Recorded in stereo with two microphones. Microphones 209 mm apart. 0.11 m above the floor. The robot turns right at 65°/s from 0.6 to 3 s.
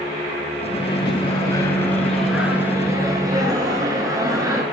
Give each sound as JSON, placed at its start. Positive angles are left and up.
{"t": 0.7, "sound": "a microwave", "side_deg": 25, "distance_m": 1.0}